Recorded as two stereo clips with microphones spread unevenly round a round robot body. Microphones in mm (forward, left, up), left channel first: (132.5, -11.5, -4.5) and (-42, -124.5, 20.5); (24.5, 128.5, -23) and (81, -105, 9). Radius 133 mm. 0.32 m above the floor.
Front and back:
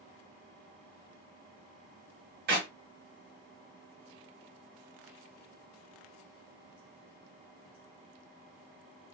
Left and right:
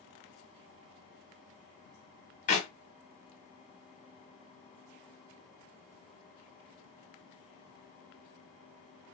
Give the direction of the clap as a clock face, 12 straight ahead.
7 o'clock.